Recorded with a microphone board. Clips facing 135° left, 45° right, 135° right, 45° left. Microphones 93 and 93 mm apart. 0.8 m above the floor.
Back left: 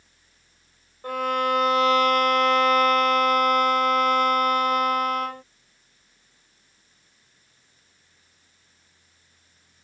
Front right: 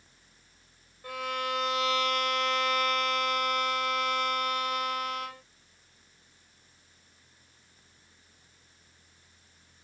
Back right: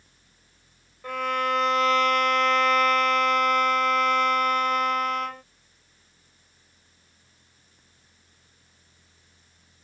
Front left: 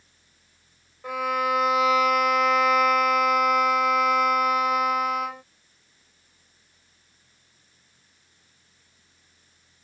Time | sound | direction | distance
1.0 | a violin | 125° left | ?